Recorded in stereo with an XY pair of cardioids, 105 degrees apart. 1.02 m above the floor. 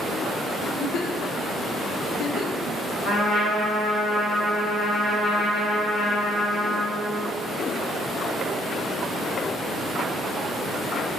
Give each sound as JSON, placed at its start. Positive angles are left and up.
{"t": 0.6, "sound": "a giggle", "azimuth_deg": 70, "distance_m": 0.6}
{"t": 3.0, "sound": "a trumpet", "azimuth_deg": 50, "distance_m": 2.0}